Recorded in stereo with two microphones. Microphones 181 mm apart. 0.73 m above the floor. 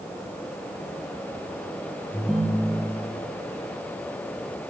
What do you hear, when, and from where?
2.1 s a ringtone: centre (ahead or behind), 3 m